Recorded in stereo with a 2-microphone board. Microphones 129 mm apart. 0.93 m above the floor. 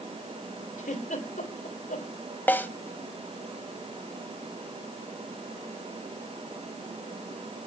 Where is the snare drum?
15° left (ahead or behind), 1.3 m.